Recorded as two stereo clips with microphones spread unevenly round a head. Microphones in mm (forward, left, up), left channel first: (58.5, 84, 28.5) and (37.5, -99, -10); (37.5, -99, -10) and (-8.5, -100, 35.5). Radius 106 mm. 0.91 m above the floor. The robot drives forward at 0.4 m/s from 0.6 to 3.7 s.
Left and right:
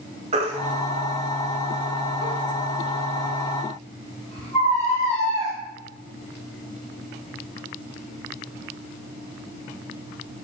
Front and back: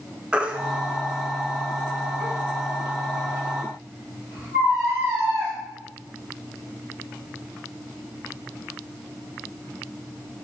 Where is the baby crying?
165° right, 0.7 m; by 5.5 s 175° right, 1.9 m.